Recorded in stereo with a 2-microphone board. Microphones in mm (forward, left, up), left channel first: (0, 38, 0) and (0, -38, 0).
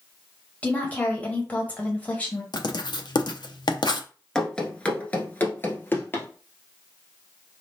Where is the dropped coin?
No dropped coin in this recording.